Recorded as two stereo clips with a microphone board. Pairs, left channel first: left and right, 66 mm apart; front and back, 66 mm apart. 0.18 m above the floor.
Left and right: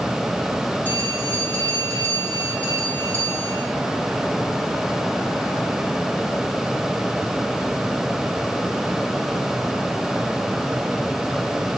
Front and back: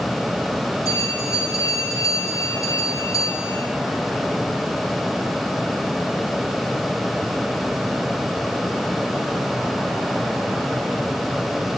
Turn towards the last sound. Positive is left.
turn(degrees=20)